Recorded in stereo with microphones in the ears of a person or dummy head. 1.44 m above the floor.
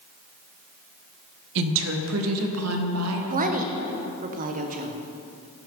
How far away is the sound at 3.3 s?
About 0.8 m.